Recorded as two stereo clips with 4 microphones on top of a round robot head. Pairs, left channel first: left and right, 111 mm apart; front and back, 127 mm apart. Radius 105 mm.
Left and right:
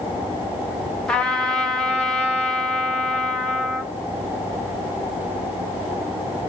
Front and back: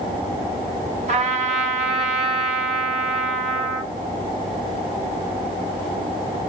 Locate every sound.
1.1 s a trumpet: 170° left, 1.3 m